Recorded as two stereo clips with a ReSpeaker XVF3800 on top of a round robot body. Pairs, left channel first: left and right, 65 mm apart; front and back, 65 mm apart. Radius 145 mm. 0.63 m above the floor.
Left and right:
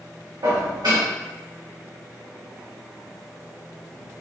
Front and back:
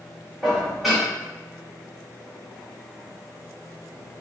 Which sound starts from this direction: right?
Dishes clattering, at 0.4 s.